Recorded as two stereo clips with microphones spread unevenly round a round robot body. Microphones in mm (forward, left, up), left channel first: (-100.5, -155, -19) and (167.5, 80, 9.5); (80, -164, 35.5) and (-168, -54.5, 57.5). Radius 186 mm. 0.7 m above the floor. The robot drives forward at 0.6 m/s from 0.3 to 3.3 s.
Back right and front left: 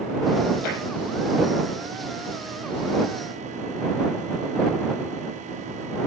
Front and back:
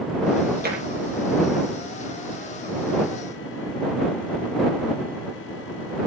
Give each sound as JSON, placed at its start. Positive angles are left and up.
{"t": 0.6, "sound": "tapping", "azimuth_deg": -150, "distance_m": 7.5}